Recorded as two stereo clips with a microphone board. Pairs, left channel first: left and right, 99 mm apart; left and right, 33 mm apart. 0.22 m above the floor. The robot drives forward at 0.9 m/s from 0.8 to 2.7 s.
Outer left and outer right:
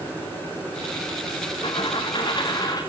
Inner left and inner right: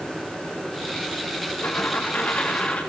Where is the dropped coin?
55° left (ahead or behind), 2 m; by 2.8 s 40° left (ahead or behind), 3 m.